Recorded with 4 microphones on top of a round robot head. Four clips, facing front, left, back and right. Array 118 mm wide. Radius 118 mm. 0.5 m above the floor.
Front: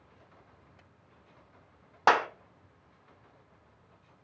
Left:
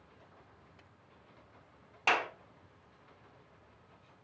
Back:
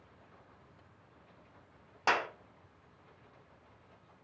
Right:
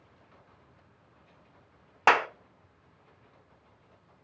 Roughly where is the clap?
Ahead right.